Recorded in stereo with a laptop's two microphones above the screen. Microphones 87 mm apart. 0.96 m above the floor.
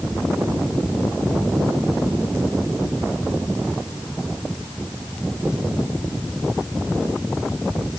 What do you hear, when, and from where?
Only background noise.